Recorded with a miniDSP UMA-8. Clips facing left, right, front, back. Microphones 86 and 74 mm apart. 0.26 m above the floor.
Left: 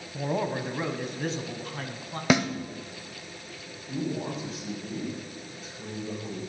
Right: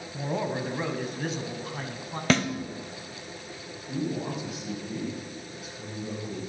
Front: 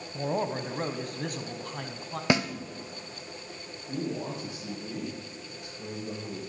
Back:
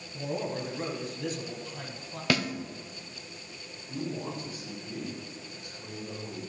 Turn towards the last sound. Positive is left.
turn(degrees=-10)